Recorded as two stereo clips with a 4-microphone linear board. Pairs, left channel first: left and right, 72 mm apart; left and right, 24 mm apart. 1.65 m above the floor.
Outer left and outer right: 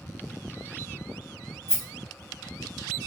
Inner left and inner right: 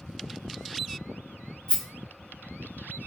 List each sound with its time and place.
1.7 s a rattle: 40° left (ahead or behind), 1.8 m